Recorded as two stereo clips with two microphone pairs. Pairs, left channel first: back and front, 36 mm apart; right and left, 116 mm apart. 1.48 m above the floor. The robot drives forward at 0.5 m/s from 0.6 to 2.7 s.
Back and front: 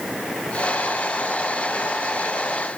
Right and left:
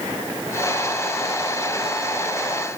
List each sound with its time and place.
Only background noise.